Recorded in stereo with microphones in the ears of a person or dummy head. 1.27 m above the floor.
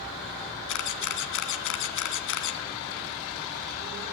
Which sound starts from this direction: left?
A camera shutter, at 0.7 s.